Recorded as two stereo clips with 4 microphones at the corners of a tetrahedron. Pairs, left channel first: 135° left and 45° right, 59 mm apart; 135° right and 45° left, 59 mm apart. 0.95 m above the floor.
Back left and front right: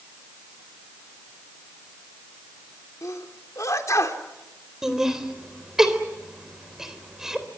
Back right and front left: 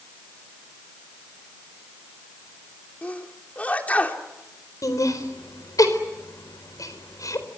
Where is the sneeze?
160° left, 3 m.